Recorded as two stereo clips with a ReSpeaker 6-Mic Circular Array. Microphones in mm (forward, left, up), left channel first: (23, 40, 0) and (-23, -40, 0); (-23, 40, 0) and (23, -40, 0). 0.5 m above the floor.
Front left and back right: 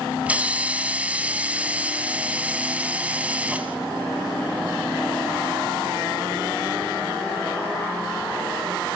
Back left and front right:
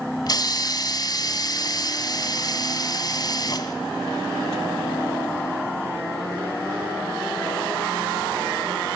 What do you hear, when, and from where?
0.3 s a hiss: 165° left, 1.7 m